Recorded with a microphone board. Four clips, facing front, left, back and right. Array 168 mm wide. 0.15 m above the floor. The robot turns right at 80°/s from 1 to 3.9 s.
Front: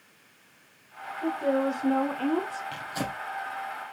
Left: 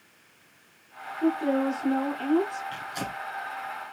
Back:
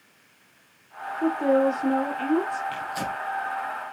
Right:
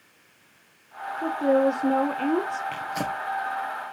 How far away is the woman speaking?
About 4 m.